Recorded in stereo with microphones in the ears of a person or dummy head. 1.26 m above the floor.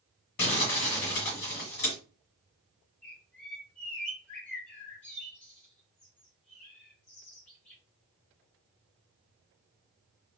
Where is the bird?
10° left (ahead or behind), 1.4 m.